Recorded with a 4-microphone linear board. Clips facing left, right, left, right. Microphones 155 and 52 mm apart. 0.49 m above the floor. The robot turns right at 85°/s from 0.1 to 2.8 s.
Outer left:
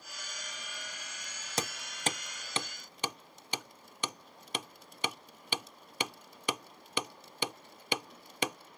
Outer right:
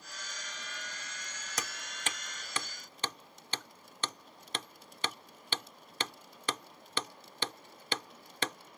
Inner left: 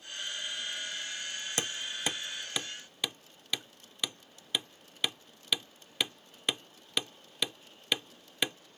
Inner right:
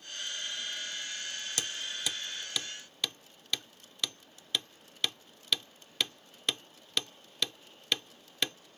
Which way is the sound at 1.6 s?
30° left (ahead or behind).